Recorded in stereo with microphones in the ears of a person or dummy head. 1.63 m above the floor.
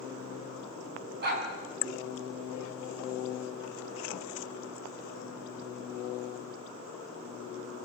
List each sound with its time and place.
1.2 s a dog barking: 60° right (ahead or behind), 4.5 m